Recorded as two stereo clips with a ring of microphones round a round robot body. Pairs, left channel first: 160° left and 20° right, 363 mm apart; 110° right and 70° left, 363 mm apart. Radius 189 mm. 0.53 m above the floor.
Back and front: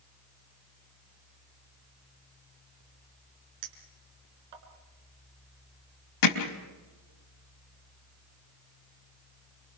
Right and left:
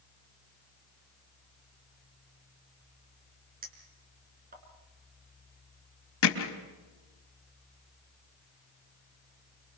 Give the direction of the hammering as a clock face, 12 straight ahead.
6 o'clock.